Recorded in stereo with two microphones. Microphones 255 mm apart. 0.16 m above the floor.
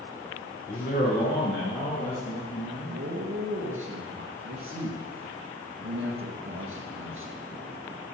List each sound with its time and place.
0.7 s a man speaking: 30° left (ahead or behind), 1.5 m; by 3.0 s 60° left (ahead or behind), 4 m
2.9 s a man speaking: 55° right (ahead or behind), 2.5 m